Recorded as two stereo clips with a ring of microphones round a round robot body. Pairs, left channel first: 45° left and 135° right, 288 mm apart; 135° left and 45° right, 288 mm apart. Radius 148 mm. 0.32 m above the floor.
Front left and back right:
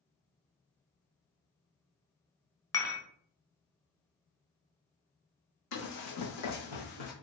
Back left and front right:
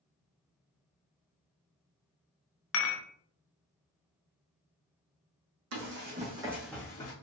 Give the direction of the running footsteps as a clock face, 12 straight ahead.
12 o'clock.